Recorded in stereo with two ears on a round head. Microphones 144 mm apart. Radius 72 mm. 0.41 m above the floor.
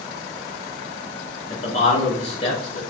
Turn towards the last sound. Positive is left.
turn(degrees=45)  # may be behind; listen again after turning